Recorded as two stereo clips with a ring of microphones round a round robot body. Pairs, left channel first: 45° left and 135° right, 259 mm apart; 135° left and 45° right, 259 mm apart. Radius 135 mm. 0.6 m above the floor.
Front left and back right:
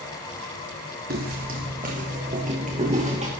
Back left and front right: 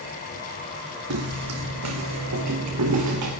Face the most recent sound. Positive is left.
turn(degrees=-70)